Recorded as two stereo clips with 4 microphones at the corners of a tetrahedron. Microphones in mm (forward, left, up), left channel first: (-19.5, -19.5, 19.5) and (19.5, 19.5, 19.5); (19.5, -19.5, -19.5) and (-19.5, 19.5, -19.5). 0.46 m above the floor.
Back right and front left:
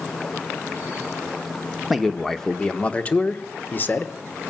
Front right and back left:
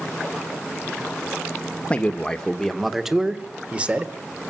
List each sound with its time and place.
1.9 s a man speaking: 45° right, 1.1 m; by 4.1 s 170° right, 1.4 m